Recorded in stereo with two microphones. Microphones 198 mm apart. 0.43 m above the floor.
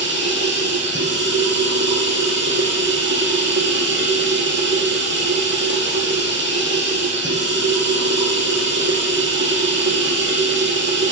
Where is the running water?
70° right (ahead or behind), 2.5 m.